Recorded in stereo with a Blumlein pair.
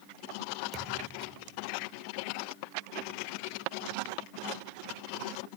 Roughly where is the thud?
Ahead right.